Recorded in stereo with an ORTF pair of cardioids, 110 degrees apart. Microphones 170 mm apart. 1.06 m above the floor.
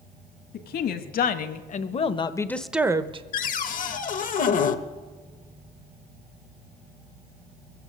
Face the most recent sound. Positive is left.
turn(degrees=50)